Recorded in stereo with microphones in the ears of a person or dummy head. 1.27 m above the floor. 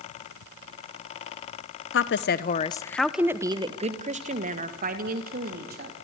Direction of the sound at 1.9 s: 60° left (ahead or behind).